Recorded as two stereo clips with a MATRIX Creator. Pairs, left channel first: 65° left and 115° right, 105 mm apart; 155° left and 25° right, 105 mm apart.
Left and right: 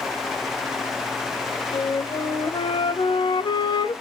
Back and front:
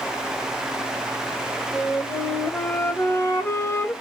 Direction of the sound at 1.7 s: 90° left.